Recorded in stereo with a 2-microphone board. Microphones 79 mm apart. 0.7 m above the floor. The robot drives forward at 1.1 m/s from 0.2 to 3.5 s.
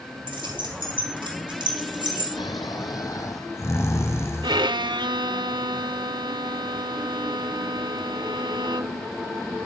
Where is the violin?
70° right (ahead or behind), 0.8 m.